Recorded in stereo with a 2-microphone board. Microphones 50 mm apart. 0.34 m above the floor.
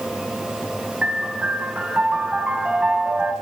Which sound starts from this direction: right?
A piano, at 1.0 s.